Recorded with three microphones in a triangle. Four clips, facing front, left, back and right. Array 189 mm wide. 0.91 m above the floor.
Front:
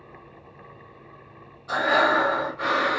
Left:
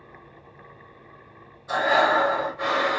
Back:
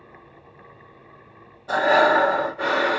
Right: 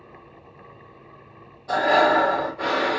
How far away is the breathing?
About 1.6 m.